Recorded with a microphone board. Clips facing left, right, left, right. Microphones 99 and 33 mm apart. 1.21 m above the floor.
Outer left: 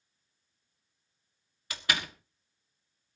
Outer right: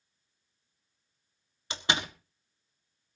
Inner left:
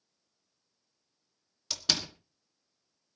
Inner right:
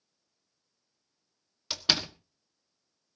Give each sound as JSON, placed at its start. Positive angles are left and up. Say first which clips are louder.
{"t": 1.7, "sound": "a door slam", "louder": "outer right 2 dB, inner right 3 dB", "side_deg": -25, "distance_m": 1.4}